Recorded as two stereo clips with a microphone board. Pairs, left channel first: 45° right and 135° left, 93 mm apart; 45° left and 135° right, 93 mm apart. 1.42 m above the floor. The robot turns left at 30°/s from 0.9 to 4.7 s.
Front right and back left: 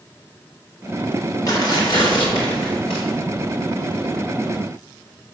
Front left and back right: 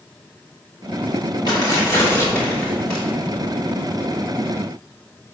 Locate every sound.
1.5 s tearing paper: 5° left, 2 m; by 3.0 s 40° right, 2 m